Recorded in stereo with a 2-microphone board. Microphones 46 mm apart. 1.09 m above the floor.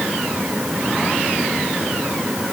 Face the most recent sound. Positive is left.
No sound to turn to.